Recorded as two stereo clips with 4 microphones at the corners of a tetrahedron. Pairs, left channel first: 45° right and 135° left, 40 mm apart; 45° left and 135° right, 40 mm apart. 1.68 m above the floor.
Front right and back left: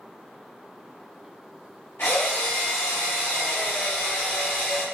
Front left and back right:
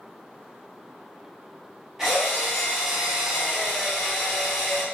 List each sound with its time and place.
2.0 s a drill: 55° right, 1.0 m